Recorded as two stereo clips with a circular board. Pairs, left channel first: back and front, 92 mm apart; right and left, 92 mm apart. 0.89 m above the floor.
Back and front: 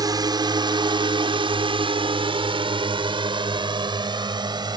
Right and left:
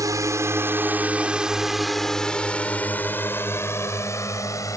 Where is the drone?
40° left; by 4.8 s 40° right.